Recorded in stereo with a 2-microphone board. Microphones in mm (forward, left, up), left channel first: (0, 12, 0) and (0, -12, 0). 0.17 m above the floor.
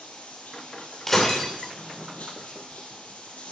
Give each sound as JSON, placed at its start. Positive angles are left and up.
{"t": 0.0, "sound": "running water", "side_deg": 75, "distance_m": 2.5}
{"t": 1.1, "sound": "breaking glass", "side_deg": 15, "distance_m": 2.5}